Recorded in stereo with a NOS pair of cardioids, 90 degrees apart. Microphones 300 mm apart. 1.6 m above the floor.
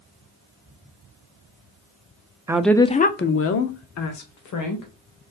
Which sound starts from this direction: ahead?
A woman speaking, at 2.5 s.